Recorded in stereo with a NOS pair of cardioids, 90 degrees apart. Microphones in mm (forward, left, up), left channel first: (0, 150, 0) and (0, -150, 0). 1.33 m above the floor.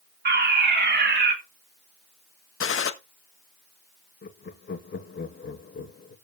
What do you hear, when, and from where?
0.2 s a fire alarm: 35° right, 3 m
2.6 s a gunshot: 45° left, 1.5 m
4.2 s laughter: 35° left, 2.5 m